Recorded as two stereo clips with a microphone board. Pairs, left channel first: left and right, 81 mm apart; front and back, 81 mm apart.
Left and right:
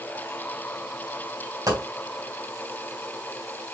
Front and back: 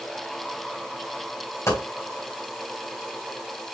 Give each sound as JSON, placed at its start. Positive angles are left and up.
{"t": 1.7, "sound": "a dropped coin", "azimuth_deg": -55, "distance_m": 3.0}